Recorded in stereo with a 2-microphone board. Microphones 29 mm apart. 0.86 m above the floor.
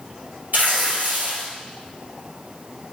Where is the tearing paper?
80° right, 4 m.